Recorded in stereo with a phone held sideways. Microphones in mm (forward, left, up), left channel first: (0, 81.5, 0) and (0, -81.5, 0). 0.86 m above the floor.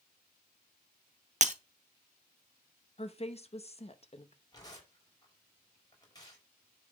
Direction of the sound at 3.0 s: 40° left (ahead or behind).